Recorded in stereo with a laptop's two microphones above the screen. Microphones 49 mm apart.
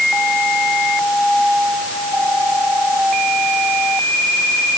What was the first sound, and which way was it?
Only background noise.